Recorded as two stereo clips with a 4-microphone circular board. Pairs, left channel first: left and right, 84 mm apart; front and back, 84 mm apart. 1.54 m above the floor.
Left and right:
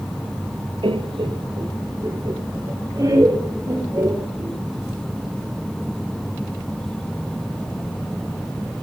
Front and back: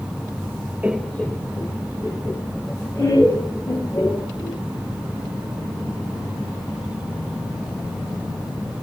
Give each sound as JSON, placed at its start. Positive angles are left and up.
{"t": 0.8, "sound": "laughter", "azimuth_deg": -110, "distance_m": 0.7}